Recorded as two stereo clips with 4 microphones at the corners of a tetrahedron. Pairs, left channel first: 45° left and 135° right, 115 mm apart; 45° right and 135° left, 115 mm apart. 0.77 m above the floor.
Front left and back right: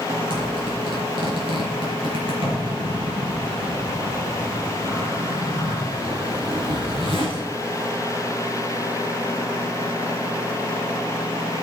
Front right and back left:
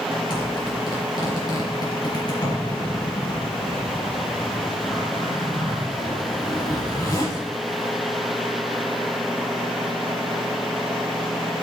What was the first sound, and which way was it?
A zipper, 95° right.